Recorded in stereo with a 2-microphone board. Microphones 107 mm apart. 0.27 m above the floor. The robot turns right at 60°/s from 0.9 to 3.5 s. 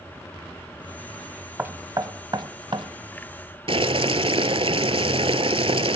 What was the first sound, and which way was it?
Knocking, 20° right (ahead or behind).